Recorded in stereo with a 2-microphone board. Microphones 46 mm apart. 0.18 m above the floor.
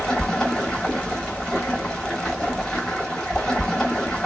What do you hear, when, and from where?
0.0 s running water: 10° left (ahead or behind), 0.8 m